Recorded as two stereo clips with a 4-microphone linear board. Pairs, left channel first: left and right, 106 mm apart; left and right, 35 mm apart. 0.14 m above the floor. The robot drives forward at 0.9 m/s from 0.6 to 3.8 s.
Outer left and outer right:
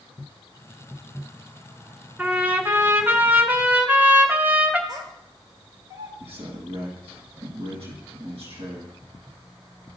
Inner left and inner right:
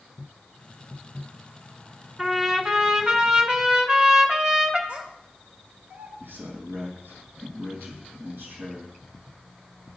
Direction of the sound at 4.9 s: 45° right (ahead or behind).